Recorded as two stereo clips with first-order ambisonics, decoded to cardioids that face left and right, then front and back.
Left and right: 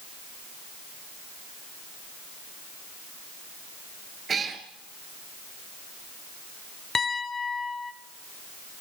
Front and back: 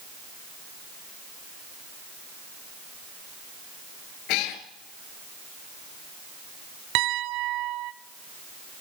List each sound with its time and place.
4.3 s a cat meowing: 20° right, 2 m
7.0 s a piano: 160° left, 1.1 m